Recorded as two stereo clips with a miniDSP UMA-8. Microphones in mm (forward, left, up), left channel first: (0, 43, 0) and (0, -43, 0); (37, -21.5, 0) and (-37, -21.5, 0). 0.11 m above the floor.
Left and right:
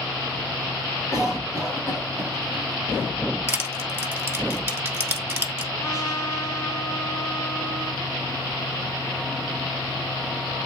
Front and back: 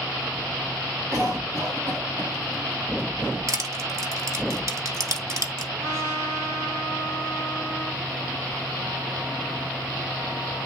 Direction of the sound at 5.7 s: 140° left.